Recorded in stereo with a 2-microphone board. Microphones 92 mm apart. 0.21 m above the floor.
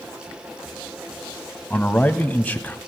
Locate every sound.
1.7 s a man speaking: 15° left (ahead or behind), 1.1 m